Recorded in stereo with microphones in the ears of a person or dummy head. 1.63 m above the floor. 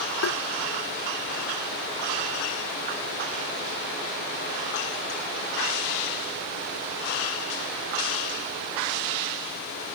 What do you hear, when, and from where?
0.2 s tapping: 90° left